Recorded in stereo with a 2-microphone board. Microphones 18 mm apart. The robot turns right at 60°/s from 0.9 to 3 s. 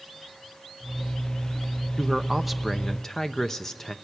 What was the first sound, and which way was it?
A man speaking, 30° right.